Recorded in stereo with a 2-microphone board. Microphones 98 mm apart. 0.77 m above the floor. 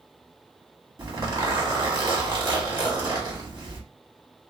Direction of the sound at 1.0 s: 40° right (ahead or behind).